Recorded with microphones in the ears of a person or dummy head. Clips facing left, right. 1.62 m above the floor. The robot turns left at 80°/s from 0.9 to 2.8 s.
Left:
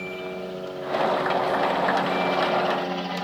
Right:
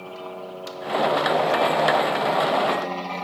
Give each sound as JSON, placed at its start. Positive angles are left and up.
{"t": 0.0, "sound": "a helicopter", "azimuth_deg": 160}